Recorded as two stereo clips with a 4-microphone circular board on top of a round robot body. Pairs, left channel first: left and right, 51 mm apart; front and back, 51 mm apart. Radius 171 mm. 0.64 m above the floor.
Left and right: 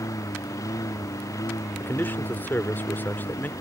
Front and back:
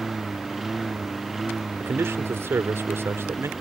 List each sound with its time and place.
0.0 s a lawn mower: 95° left
1.8 s a man speaking: 145° left